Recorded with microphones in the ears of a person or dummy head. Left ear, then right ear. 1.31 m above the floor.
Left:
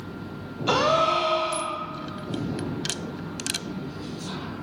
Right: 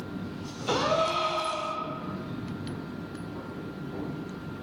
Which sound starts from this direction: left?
A gasp, at 0.7 s.